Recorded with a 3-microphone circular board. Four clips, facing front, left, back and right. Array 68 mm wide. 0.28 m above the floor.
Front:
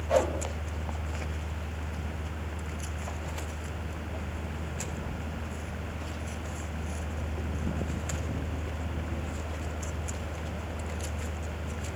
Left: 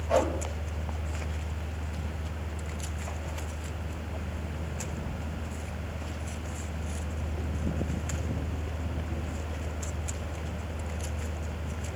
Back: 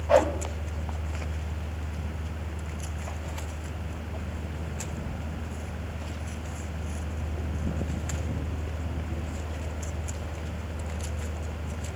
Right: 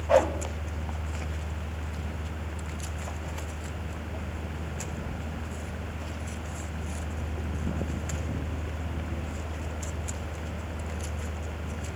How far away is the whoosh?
About 1.8 m.